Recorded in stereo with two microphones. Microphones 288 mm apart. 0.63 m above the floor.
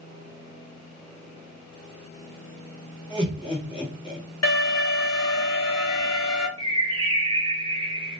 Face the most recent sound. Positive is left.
turn(degrees=-20)  # may be behind; listen again after turning